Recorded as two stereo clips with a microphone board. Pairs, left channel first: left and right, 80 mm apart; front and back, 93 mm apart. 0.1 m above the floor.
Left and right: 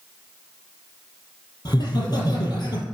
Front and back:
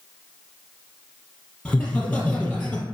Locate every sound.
1.6 s laughter: 80° left, 2.5 m